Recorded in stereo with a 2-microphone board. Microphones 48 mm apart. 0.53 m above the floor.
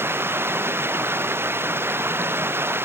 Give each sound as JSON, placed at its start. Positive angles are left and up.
{"t": 0.0, "sound": "running water", "side_deg": -55}